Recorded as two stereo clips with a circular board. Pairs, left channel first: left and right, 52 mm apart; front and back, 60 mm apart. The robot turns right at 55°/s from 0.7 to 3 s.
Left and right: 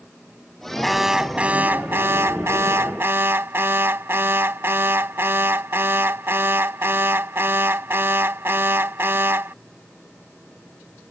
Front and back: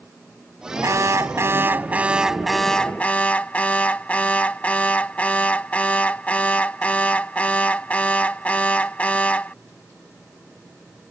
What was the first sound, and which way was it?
An alarm, straight behind.